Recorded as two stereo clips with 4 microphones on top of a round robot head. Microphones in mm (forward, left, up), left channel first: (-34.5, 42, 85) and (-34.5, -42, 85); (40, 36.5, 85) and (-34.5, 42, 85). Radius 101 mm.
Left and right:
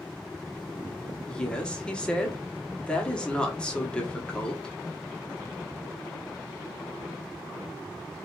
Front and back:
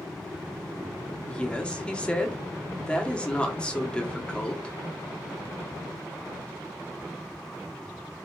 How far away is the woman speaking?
About 0.9 m.